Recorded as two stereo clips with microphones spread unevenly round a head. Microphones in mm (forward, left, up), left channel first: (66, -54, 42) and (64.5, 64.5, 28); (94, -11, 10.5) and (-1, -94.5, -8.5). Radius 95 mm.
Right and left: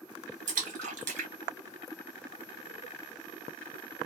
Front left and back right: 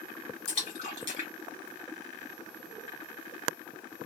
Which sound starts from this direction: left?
A splash, at 0.5 s.